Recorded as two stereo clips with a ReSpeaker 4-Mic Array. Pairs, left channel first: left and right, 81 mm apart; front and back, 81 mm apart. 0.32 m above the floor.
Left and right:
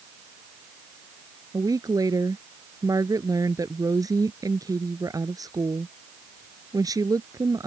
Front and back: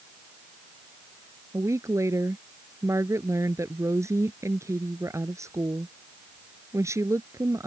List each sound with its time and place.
1.5 s a woman speaking: 130° right